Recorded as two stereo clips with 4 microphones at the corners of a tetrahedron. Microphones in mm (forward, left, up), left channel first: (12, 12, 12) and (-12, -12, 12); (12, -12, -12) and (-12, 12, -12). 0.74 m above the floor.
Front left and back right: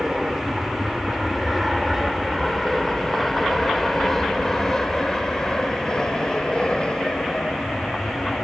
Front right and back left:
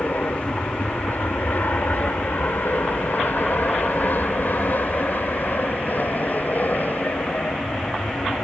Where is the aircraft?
60° right; by 8.4 s 15° right.